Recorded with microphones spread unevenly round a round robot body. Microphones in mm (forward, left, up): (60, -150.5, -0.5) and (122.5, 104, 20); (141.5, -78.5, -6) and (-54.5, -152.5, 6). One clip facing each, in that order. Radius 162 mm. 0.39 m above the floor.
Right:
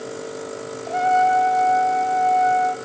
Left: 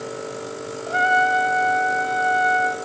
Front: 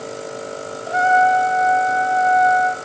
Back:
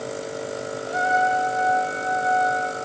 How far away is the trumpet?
About 2.5 m.